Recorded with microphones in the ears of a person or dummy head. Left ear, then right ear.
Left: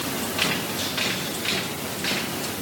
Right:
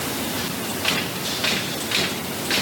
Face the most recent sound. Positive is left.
No sound to turn to.